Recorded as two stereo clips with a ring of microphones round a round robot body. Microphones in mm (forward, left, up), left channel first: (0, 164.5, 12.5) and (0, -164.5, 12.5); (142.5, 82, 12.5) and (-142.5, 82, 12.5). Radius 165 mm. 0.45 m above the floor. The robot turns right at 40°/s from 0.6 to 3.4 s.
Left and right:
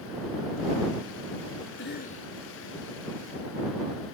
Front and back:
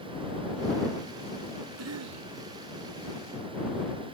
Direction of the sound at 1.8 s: 145° left.